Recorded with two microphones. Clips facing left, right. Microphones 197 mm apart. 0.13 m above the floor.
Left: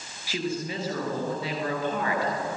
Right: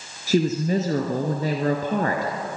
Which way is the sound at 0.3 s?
45° right (ahead or behind).